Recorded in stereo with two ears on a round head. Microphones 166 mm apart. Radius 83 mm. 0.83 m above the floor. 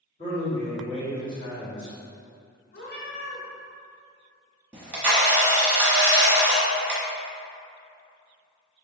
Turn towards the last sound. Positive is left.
turn(degrees=-5)  # may be behind; listen again after turning